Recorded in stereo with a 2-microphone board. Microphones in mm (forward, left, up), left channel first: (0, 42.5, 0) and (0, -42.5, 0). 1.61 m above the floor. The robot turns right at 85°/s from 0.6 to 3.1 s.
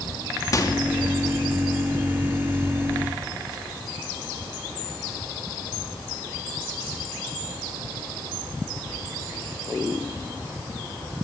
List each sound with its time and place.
0.5 s a microwave: 45° left (ahead or behind), 2.5 m; by 0.8 s 60° left (ahead or behind), 2.5 m